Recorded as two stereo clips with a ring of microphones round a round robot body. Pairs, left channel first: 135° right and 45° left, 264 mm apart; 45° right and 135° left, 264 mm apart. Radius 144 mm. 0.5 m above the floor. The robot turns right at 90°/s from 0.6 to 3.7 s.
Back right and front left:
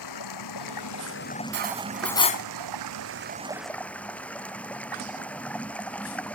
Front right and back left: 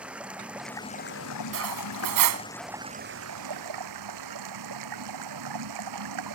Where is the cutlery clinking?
90° left; by 2.5 s 175° left.